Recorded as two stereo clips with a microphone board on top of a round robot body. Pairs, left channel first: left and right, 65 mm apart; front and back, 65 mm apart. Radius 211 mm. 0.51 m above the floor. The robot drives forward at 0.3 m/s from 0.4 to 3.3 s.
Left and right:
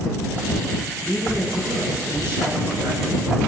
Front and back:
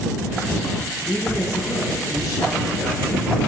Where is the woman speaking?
30° right, 9 m; by 3.4 s 35° right, 8.5 m.